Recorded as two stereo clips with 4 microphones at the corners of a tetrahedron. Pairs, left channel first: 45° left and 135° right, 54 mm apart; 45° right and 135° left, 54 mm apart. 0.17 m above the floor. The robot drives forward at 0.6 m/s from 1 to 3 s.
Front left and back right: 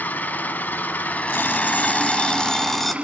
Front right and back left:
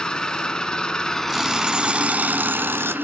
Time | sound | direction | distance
0.0 | an engine running | 25° left | 0.9 m
1.3 | an alarm clock | 55° left | 1.1 m